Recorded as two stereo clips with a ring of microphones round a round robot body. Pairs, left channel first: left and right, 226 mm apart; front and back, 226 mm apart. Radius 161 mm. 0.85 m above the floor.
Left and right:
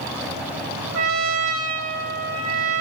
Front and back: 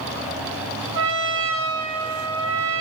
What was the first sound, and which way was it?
A trumpet, 75° right.